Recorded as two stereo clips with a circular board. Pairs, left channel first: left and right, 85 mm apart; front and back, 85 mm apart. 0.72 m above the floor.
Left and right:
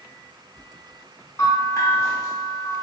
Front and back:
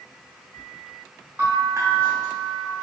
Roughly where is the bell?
Behind left.